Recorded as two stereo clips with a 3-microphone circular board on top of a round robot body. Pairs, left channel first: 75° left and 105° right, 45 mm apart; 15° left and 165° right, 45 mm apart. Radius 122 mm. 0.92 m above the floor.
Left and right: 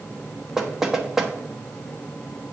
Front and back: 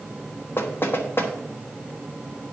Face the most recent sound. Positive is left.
turn(degrees=-25)